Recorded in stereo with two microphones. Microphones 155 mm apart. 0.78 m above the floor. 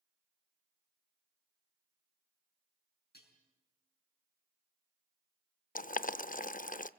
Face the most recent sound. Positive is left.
turn(degrees=60)  # may be behind; listen again after turning